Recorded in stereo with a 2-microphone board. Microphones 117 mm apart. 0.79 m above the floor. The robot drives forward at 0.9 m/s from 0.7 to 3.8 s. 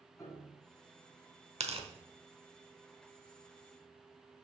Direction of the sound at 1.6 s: 60° right (ahead or behind).